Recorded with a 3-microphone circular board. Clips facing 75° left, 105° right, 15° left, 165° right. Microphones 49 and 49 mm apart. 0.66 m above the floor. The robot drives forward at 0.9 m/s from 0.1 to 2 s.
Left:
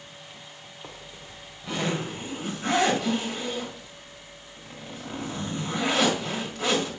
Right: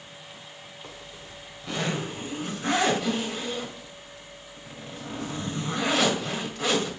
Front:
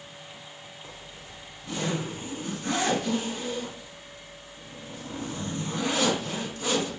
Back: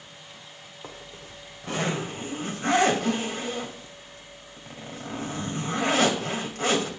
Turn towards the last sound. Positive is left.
turn(degrees=165)